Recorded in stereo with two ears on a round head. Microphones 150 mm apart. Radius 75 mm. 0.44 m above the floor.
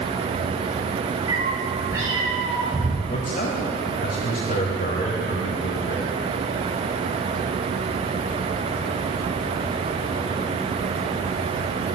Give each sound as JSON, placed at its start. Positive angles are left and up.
{"t": 1.3, "sound": "a cat meowing", "side_deg": -20, "distance_m": 3.0}
{"t": 3.1, "sound": "a man speaking", "side_deg": 45, "distance_m": 2.0}